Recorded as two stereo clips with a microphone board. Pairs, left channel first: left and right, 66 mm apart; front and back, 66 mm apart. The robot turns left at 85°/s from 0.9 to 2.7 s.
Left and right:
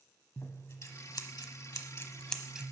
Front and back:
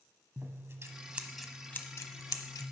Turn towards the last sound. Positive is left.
turn(degrees=-20)